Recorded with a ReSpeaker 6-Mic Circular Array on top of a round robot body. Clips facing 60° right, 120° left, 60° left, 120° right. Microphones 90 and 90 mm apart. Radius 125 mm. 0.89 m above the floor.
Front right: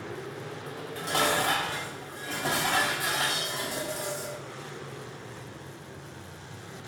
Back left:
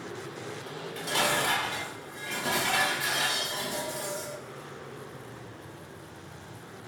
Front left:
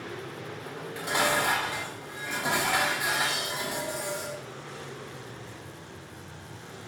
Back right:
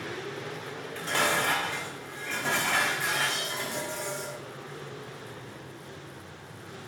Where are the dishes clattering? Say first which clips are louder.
Front right 2 dB, front left 1 dB; 15° right, 4.5 m.